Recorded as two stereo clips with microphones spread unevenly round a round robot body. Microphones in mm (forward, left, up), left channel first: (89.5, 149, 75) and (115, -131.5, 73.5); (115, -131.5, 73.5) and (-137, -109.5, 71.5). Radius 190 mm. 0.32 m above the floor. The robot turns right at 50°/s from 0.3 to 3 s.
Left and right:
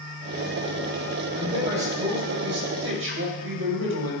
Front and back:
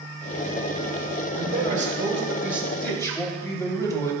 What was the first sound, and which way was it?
A man speaking, 160° right.